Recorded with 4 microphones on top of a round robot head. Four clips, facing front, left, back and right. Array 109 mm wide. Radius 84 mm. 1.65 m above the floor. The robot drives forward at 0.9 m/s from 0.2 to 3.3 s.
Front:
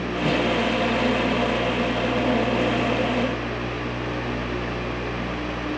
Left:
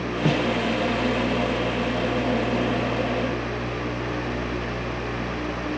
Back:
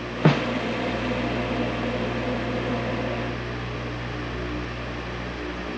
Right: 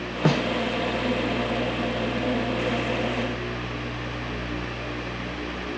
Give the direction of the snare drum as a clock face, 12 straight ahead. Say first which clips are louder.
Even, back 2 dB; 5 o'clock.